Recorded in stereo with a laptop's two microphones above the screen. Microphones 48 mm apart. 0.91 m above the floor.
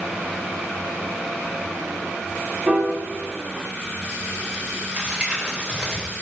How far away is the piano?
About 1.2 m.